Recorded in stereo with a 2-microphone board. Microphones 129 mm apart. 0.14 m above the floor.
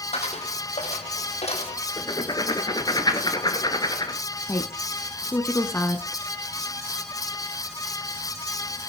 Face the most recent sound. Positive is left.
turn(degrees=20)  # may be behind; listen again after turning